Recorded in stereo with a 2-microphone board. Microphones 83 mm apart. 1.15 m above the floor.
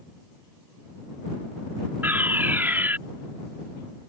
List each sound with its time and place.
2.0 s a fire alarm: 25° right (ahead or behind)